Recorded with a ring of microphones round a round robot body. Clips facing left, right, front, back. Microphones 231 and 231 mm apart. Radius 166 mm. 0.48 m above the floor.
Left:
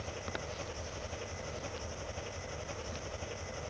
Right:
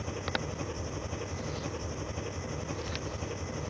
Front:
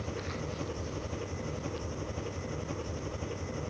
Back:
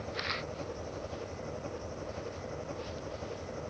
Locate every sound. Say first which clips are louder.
0.0 s an engine running: right 6 dB, front 2 dB; 65° right